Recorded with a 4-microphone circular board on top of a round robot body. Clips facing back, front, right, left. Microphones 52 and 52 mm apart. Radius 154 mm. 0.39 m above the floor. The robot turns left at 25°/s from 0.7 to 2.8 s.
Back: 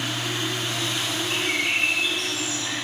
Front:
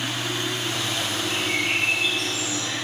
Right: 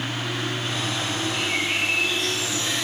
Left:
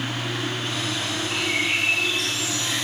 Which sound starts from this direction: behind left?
A bird, at 1.3 s.